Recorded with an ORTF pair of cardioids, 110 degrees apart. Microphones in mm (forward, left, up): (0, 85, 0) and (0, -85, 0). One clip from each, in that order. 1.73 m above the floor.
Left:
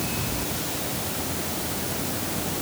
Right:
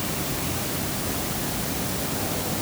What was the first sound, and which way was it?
Only background noise.